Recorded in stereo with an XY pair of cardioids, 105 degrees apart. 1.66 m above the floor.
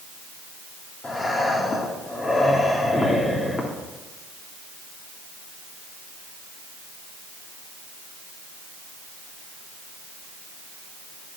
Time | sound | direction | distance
1.0 | breathing | 30° left | 3 m